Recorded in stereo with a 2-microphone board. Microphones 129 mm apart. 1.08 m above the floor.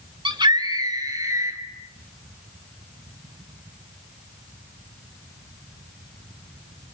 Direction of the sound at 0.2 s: 40° right (ahead or behind).